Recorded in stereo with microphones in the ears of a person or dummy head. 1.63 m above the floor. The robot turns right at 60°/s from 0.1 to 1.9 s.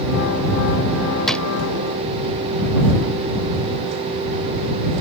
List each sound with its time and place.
1.3 s a drawer: centre (ahead or behind); by 1.4 s 10° left (ahead or behind)